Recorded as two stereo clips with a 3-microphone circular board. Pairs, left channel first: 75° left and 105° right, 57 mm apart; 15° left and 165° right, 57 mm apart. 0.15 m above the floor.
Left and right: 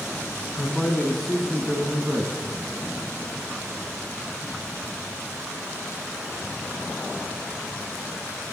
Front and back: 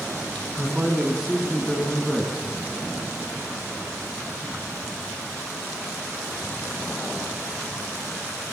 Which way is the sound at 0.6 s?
125° left.